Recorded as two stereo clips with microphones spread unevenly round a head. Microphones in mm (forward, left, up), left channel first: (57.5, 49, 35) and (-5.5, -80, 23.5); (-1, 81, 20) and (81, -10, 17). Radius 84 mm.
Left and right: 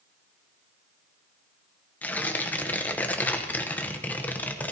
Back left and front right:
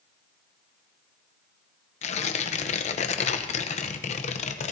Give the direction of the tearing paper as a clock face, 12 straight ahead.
7 o'clock.